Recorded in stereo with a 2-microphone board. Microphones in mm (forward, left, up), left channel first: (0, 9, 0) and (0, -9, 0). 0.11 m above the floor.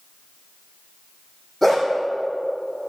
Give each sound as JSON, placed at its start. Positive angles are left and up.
{"t": 1.6, "sound": "a dog barking", "side_deg": 10, "distance_m": 2.0}